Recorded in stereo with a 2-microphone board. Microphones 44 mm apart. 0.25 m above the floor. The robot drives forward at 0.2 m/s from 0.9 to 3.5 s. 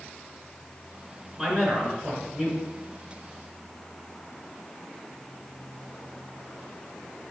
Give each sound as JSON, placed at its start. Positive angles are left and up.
{"t": 1.4, "sound": "a man speaking", "side_deg": 5, "distance_m": 3.5}